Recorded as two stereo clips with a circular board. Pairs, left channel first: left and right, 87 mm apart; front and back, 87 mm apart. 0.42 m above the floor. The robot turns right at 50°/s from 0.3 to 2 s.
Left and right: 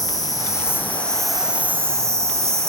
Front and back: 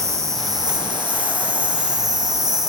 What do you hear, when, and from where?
0.0 s an insect: 130° left, 1.0 m; by 2.7 s 145° right, 1.0 m